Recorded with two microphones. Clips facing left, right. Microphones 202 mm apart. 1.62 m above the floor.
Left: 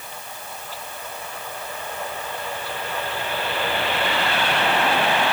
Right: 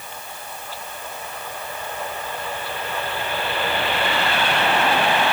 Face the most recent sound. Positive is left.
No sound to turn to.